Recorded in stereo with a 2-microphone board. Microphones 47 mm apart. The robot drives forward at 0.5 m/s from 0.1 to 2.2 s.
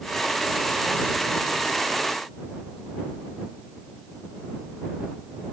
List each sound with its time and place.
Only background noise.